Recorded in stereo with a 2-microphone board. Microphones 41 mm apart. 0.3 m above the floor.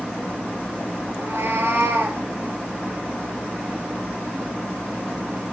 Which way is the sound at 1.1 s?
75° right (ahead or behind).